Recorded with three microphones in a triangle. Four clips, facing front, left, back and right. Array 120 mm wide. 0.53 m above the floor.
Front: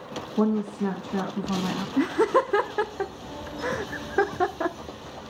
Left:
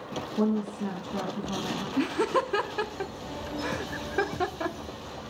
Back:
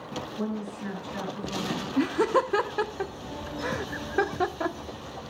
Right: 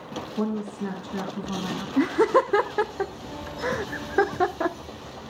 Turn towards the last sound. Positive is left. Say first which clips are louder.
# right 7 dB, front 2 dB
turn(degrees=-65)